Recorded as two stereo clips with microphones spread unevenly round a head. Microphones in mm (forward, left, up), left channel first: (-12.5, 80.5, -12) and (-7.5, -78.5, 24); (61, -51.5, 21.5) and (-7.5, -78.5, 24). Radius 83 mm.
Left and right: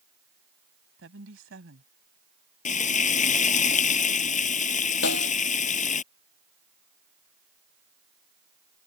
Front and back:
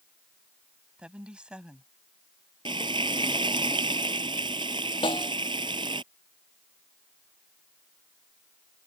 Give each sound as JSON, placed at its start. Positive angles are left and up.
{"t": 1.0, "sound": "a woman speaking", "azimuth_deg": -80}
{"t": 2.6, "sound": "frying", "azimuth_deg": 140}
{"t": 5.0, "sound": "a snare drum", "azimuth_deg": 70}